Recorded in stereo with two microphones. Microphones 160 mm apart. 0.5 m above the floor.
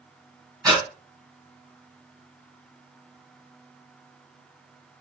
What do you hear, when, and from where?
0.6 s breathing: 20° right (ahead or behind), 1.9 m